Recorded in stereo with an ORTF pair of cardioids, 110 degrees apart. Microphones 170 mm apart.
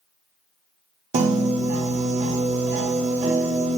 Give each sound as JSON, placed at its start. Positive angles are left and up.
{"t": 1.1, "sound": "a piano", "azimuth_deg": -45, "distance_m": 0.7}